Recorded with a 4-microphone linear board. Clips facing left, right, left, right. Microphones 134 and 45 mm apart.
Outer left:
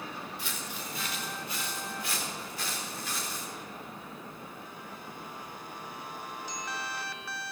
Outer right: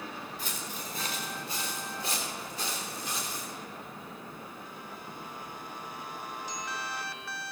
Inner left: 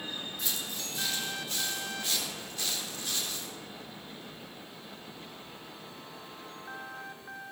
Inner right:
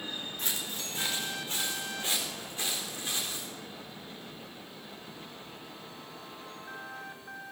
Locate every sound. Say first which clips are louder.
0.4 s footsteps: even, inner right 1 dB; 40° right (ahead or behind), 3 m; by 3.5 s 20° right (ahead or behind), 4.5 m